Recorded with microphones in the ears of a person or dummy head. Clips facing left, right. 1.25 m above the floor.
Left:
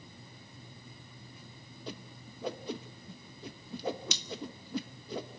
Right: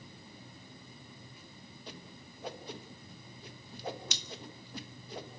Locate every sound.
1.9 s a whoosh: 65° left (ahead or behind), 1.4 m